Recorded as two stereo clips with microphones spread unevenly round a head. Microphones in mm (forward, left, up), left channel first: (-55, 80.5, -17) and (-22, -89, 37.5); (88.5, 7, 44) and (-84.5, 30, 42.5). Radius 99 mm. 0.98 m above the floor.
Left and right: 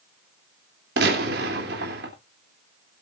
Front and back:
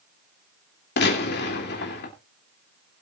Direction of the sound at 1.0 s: 35° right.